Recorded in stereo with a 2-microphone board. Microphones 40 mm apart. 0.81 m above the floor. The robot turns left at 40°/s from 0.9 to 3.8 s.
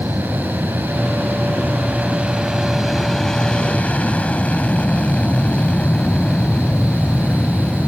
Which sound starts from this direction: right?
An aircraft, at 0.0 s.